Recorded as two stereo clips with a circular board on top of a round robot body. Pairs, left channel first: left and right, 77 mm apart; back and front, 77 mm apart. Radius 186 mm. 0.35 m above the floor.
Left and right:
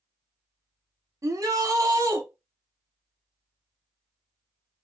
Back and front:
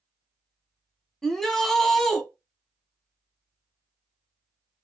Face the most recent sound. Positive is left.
turn(degrees=-95)